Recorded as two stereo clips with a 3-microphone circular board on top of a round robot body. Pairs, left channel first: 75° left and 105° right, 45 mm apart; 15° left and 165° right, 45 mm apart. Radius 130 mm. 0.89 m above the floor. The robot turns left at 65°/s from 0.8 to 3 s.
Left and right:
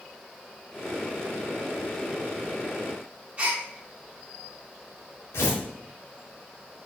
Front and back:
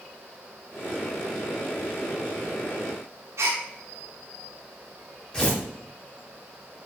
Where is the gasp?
165° right, 1.1 m.